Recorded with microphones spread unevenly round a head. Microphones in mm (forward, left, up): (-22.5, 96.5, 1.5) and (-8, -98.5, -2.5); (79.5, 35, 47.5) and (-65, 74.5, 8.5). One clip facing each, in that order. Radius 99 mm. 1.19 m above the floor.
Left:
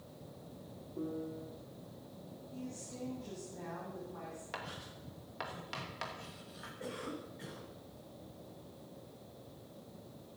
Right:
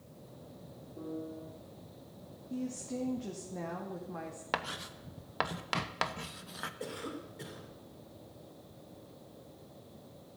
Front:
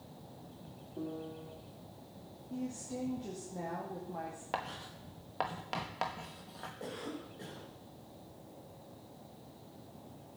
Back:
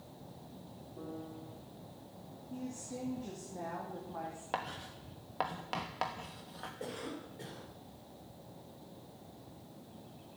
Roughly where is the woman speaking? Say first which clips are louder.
Right 9 dB, front 3 dB; right.